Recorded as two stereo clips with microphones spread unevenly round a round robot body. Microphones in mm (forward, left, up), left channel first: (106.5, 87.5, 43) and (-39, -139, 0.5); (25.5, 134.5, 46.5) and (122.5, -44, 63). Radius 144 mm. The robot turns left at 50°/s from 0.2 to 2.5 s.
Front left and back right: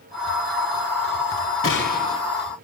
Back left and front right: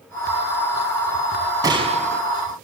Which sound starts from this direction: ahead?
A gunshot, at 1.6 s.